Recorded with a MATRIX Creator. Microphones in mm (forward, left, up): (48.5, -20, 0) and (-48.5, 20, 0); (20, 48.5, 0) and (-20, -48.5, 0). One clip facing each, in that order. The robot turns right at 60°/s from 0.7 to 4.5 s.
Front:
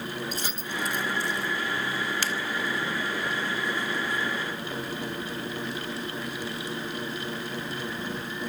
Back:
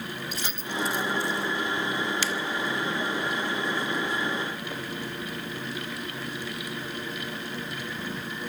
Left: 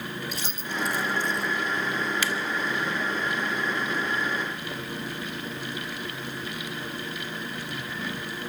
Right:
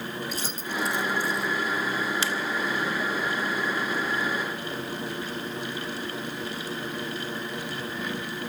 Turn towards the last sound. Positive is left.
turn(degrees=80)